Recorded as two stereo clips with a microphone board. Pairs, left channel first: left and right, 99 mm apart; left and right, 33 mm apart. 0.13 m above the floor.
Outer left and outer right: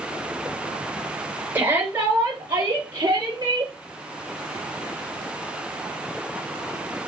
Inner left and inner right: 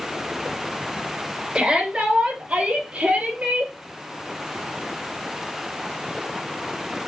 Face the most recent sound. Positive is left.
turn(degrees=-50)  # may be behind; listen again after turning